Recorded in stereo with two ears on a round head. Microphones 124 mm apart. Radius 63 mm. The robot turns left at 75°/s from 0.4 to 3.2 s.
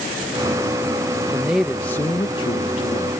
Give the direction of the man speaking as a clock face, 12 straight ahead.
5 o'clock.